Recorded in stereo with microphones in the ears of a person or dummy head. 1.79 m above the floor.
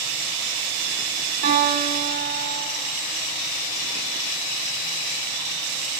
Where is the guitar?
60° right (ahead or behind), 2.5 m.